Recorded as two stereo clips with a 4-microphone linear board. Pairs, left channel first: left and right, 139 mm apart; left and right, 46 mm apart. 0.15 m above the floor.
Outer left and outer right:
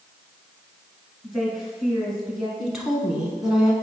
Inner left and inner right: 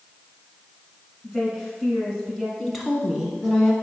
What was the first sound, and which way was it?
A woman speaking, centre (ahead or behind).